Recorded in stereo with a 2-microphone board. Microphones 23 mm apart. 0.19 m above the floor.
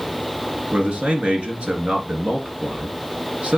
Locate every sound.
0.7 s a man speaking: 65° right (ahead or behind), 2.5 m